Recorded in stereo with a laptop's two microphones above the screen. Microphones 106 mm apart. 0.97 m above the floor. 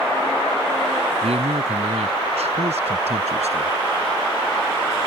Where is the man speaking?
80° right; by 3.7 s 90° right.